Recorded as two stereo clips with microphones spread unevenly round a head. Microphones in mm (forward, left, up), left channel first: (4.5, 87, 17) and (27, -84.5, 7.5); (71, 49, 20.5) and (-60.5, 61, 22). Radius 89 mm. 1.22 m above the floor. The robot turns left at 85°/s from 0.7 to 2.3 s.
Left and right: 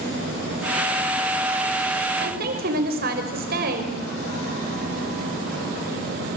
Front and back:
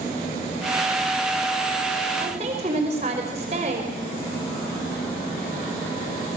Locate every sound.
2.2 s a woman speaking: 120° right, 5 m; by 4.0 s 125° right, 5 m